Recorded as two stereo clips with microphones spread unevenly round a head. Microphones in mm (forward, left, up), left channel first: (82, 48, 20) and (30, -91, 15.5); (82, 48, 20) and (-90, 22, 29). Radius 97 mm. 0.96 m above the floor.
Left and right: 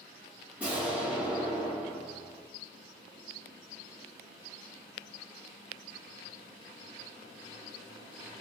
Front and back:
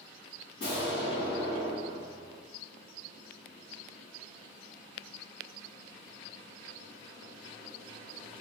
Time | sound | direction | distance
0.6 | an explosion | 30° right | 2.0 m